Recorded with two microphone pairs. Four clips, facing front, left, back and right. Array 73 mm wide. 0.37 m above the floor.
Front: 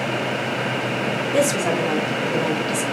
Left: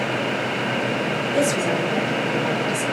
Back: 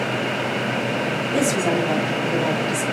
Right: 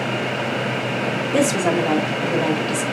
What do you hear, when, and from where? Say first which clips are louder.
1.3 s a woman speaking: right 3 dB, even; 65° right, 1.2 m